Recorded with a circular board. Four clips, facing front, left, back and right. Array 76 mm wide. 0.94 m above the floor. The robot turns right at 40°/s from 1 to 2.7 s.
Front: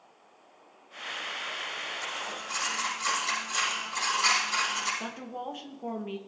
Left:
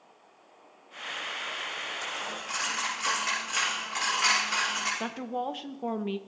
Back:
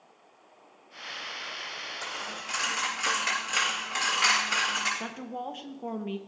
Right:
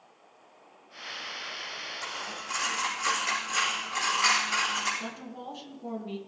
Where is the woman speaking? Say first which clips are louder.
Left 7 dB, back 1 dB; 100° left, 1.0 m.